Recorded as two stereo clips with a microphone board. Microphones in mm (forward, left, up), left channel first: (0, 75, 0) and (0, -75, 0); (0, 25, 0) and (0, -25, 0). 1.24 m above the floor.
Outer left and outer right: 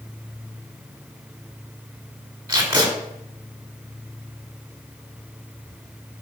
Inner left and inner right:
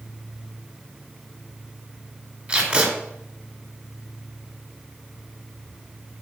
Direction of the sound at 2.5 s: 25° right (ahead or behind).